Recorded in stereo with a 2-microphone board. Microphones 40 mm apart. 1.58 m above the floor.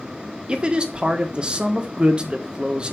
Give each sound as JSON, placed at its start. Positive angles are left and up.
{"t": 0.5, "sound": "a man speaking", "side_deg": -25, "distance_m": 1.5}